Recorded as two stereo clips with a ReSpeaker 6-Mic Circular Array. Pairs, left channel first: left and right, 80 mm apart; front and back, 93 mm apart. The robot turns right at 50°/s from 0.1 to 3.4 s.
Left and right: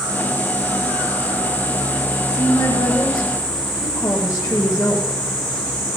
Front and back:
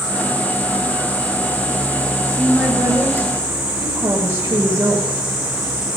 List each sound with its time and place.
2.3 s a woman speaking: 80° left, 1.2 m; by 5.2 s 135° left, 1.2 m